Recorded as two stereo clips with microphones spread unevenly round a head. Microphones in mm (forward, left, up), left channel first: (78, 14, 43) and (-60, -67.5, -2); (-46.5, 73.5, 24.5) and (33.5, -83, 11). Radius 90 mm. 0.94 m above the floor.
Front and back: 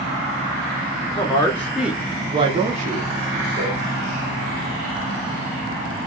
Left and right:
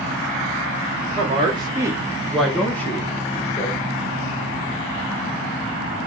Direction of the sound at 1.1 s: 35° right.